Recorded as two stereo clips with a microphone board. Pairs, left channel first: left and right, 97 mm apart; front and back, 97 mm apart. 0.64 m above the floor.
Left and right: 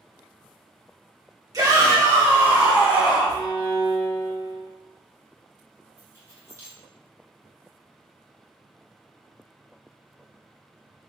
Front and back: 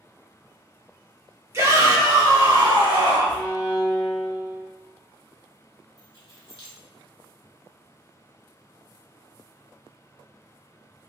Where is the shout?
130° right, 1.8 m; by 3.4 s 175° right, 2.5 m.